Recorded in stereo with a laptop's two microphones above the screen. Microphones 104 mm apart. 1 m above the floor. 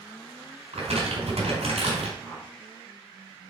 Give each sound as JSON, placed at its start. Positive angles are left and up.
{"t": 0.7, "sound": "crumpling", "side_deg": -80, "distance_m": 3.5}
{"t": 2.2, "sound": "a whoosh", "side_deg": -20, "distance_m": 2.5}